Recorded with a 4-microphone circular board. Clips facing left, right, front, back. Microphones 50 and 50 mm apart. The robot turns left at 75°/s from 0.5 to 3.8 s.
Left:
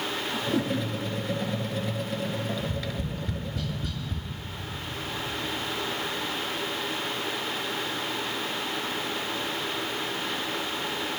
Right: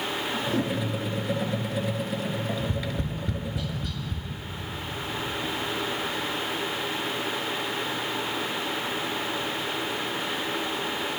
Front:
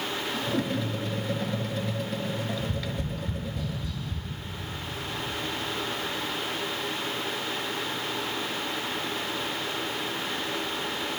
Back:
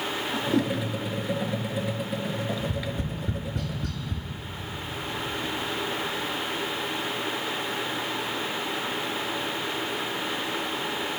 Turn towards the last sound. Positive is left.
turn(degrees=180)